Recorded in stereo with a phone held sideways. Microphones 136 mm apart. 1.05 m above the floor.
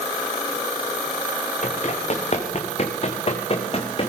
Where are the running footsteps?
60° left (ahead or behind), 5 m; by 4.1 s 45° left (ahead or behind), 4 m.